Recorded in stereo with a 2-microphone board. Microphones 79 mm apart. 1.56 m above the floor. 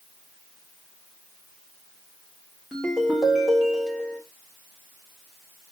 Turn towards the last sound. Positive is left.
turn(degrees=10)  # may be behind; listen again after turning